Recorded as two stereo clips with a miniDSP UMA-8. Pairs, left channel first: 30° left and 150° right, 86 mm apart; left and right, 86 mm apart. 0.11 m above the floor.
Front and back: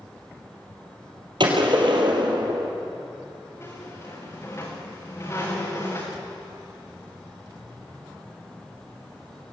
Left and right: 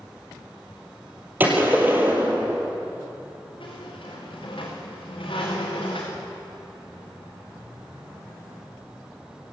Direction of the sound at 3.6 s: 85° left.